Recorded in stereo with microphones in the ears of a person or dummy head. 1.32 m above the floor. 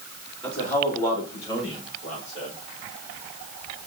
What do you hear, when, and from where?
0.4 s a man speaking: 10° left (ahead or behind), 4.5 m; by 2.5 s 40° left (ahead or behind), 5 m